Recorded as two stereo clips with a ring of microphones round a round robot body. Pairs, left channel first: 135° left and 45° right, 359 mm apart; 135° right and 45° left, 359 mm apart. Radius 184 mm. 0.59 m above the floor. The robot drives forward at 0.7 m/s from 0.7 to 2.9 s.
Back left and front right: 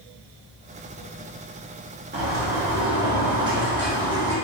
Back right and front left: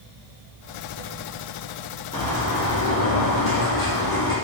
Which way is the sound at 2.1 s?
75° right.